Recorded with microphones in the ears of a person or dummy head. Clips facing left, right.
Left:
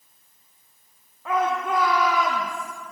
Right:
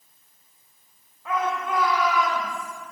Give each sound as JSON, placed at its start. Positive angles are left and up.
{"t": 1.2, "sound": "a shout", "side_deg": 45, "distance_m": 3.0}